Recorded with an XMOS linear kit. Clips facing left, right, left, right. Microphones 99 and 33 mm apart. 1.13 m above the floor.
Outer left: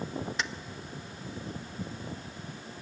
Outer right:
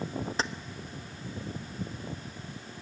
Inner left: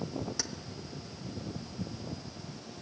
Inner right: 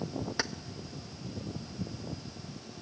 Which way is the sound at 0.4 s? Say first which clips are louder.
Outer right 5 dB, inner right 5 dB; 35° right (ahead or behind).